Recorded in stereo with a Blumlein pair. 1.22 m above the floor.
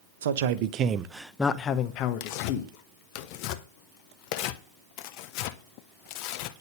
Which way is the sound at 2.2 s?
45° left.